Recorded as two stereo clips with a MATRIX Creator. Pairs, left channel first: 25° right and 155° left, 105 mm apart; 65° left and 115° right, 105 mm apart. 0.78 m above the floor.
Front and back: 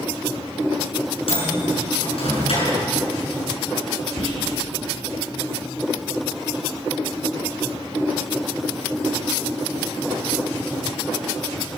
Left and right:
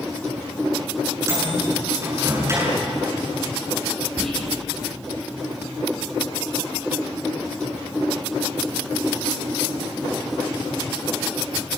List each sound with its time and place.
1.3 s a microwave: 50° right, 8 m
4.2 s whispering: 15° right, 6.5 m